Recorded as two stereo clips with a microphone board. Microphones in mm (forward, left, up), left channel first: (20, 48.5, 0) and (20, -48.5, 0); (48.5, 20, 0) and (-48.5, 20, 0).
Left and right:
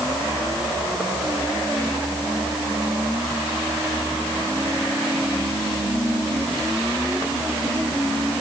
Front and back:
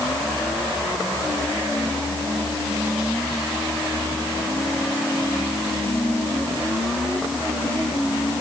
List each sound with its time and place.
Only background noise.